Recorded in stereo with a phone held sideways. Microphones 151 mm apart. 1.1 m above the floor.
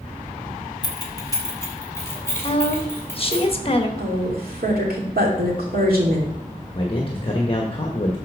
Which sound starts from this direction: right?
A woman speaking, at 4.0 s.